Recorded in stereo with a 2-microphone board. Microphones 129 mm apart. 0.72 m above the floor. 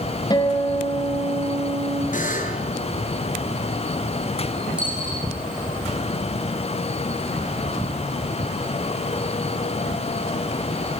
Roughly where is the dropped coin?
Centre.